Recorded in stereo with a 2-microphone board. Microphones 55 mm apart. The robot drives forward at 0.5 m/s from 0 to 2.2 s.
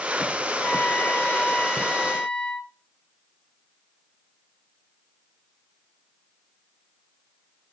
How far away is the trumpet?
About 0.9 m.